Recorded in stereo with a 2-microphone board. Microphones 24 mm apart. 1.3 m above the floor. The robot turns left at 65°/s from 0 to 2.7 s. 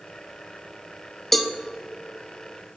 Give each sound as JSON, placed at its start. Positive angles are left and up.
{"t": 1.3, "sound": "a cowbell", "side_deg": 5, "distance_m": 0.5}